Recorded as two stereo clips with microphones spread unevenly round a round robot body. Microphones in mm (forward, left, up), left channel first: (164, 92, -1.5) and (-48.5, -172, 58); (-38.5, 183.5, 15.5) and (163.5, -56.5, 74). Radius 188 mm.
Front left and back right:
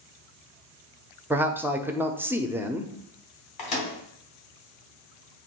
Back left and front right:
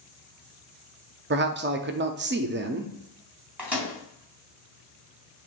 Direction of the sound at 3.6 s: 40° left.